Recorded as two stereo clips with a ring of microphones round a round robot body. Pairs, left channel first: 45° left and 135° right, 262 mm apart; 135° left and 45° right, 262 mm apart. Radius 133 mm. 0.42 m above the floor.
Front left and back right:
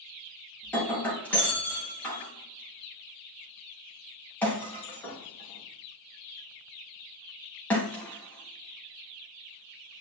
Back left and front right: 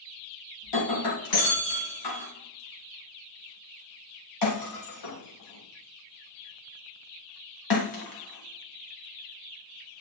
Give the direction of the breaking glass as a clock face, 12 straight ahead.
8 o'clock.